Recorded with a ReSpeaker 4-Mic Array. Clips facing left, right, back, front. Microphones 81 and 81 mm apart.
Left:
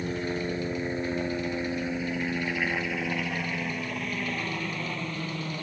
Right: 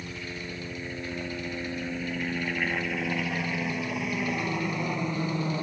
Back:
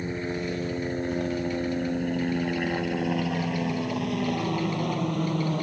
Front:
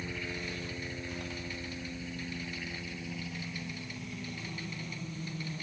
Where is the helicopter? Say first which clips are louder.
Left 8 dB, back 9 dB; 130° left; by 5.6 s 160° right.